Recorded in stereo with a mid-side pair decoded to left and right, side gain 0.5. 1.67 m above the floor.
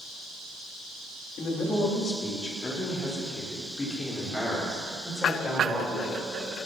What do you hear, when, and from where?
1.4 s a man speaking: 50° left, 4 m; by 6.3 s 20° left, 9 m